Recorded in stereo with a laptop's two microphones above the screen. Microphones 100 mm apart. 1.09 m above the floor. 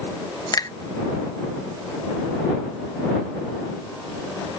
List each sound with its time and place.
0.5 s a finger snap: 40° left (ahead or behind)